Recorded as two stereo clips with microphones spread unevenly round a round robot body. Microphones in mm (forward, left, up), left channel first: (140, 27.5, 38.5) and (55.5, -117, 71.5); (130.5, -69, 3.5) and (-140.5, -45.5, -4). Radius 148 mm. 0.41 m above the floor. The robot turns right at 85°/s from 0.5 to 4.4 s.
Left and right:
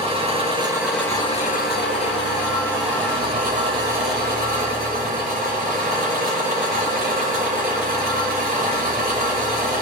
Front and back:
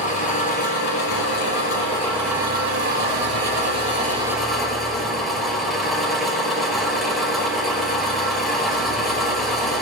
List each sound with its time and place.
0.0 s an engine running: 65° right, 5 m; by 9.8 s 95° right, 5 m